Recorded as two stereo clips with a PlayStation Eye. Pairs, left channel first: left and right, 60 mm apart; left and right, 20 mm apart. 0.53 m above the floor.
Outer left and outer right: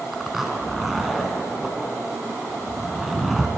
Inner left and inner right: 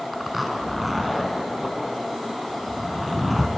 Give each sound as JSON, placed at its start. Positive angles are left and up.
{"t": 0.1, "sound": "a zipper", "side_deg": -5, "distance_m": 1.0}